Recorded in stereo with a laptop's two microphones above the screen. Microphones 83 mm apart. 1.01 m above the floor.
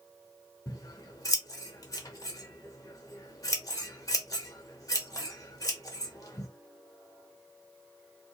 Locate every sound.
0.7 s scissors: 45° left (ahead or behind), 0.9 m